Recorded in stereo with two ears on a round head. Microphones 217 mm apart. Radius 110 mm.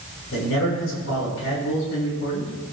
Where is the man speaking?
55° left (ahead or behind), 7 m.